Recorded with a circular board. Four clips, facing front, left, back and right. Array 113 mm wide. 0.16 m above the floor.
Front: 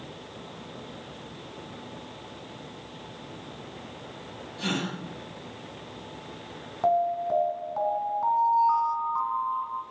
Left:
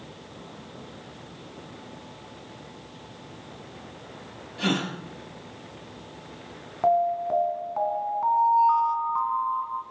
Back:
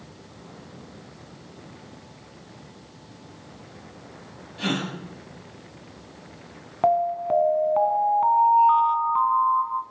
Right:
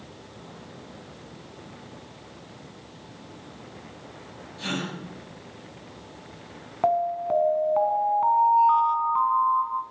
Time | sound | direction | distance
4.6 | a gasp | 115° left | 4.5 m
6.8 | an alarm | 155° right | 1.1 m